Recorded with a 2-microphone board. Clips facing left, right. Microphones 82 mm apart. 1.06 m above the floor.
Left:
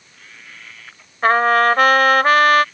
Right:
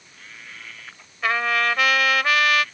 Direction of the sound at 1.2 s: 45° left (ahead or behind).